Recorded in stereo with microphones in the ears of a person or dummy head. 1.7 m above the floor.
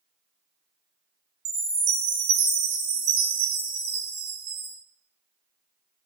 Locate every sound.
1.4 s a chime: 80° right, 1.3 m